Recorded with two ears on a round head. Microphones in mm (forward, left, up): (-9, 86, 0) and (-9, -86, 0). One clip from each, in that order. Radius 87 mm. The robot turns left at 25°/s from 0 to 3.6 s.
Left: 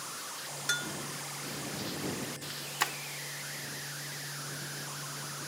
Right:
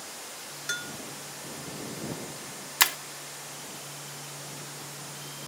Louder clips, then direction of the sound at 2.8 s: Right 8 dB; 75° right (ahead or behind).